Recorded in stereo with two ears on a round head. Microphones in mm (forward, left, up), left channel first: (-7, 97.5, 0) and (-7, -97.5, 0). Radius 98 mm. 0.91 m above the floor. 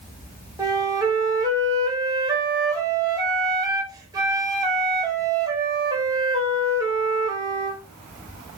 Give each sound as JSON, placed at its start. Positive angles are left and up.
{"t": 0.6, "sound": "a flute", "side_deg": -15, "distance_m": 0.9}